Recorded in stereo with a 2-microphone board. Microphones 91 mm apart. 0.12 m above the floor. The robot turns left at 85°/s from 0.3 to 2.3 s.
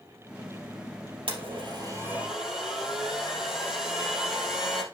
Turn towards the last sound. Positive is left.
turn(degrees=-175)